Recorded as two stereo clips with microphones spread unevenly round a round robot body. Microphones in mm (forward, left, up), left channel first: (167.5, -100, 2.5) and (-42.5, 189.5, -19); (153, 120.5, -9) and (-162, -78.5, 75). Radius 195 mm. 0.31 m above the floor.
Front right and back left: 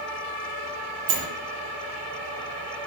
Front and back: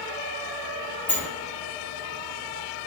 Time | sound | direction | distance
1.1 | a sliding door | 115° left | 0.7 m